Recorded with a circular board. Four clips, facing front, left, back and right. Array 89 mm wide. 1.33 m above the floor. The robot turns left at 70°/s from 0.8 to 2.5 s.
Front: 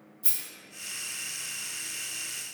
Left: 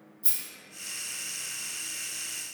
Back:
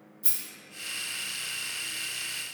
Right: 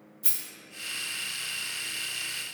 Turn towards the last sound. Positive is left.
turn(degrees=150)